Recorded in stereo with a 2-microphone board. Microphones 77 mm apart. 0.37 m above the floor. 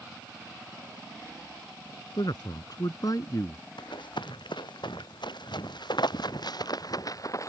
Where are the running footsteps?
85° left; by 7.5 s 45° left (ahead or behind).